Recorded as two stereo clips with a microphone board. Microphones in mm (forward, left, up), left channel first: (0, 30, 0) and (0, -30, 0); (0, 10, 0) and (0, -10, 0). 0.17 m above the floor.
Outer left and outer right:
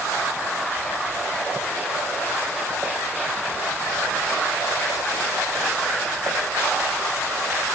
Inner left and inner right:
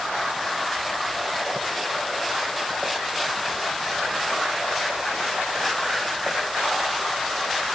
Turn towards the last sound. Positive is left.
No sound to turn to.